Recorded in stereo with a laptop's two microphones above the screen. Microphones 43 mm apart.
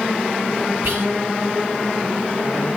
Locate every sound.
0.8 s whispering: 65° right (ahead or behind), 3 m